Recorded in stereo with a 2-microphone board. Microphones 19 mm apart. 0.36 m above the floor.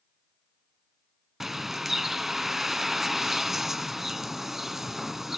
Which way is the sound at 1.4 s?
15° right (ahead or behind).